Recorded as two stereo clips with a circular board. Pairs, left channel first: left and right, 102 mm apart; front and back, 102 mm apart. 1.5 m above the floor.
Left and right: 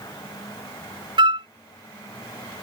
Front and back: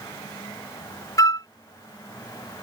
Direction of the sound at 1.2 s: 55° right.